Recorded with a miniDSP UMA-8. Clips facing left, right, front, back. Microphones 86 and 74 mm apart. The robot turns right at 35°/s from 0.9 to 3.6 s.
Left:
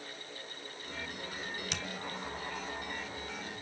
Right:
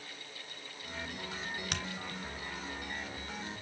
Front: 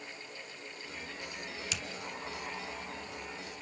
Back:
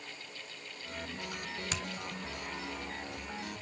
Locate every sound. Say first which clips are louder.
1.7 s a finger snap: right 2 dB, back 3 dB; 130° right, 1.5 m; by 1.8 s 125° right, 1.5 m